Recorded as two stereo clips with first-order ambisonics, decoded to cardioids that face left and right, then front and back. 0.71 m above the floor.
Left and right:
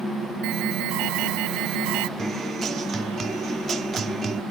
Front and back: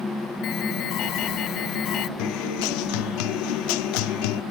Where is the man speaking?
I don't hear a man speaking.